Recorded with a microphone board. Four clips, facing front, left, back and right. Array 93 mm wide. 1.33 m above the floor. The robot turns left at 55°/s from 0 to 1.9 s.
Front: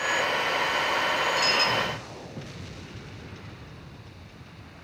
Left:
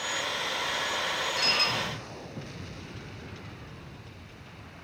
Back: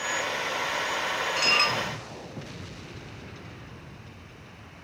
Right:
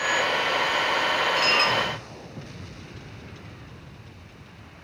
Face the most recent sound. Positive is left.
turn(degrees=-160)